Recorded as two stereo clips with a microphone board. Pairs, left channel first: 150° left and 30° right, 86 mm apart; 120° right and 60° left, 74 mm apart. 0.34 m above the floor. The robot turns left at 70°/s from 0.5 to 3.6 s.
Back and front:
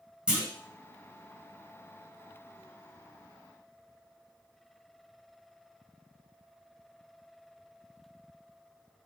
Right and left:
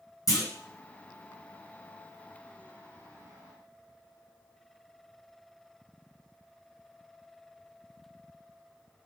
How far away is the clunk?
About 1.9 m.